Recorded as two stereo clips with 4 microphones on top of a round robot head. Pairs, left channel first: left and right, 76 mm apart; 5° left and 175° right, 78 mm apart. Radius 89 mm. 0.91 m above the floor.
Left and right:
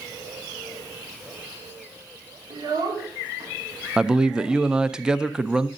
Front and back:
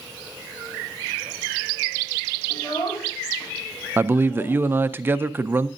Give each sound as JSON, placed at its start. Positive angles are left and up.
{"t": 2.5, "sound": "a child speaking", "azimuth_deg": -60, "distance_m": 1.7}
{"t": 4.0, "sound": "a man speaking", "azimuth_deg": -160, "distance_m": 0.5}